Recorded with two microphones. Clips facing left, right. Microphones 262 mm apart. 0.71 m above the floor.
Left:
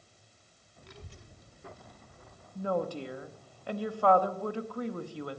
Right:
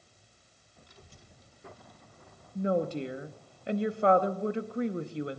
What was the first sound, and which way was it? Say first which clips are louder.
A child speaking: left 6 dB; 75° left (ahead or behind).